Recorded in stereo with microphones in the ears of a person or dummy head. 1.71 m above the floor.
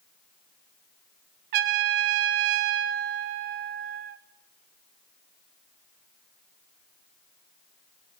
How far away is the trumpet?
About 0.6 m.